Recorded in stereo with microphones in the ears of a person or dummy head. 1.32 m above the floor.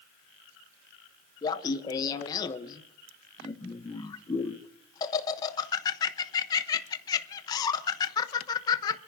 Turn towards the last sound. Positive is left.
turn(degrees=20)  # may be behind; listen again after turning